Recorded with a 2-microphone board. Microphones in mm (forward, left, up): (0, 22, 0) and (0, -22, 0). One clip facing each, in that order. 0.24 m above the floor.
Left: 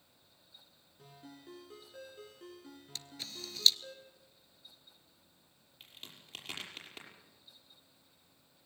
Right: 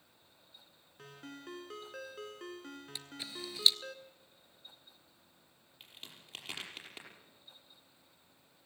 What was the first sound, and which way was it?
A ringtone, 70° right (ahead or behind).